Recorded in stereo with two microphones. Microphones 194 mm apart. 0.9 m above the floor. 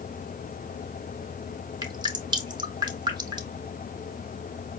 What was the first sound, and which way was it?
Dripping, 20° right (ahead or behind).